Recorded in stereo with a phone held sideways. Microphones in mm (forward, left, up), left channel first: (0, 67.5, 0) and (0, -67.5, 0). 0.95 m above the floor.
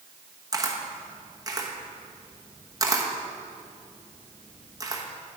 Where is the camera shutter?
25° right (ahead or behind), 1.0 m.